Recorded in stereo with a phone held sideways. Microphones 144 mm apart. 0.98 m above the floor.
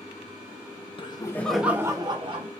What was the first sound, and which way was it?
Laughter, 40° left (ahead or behind).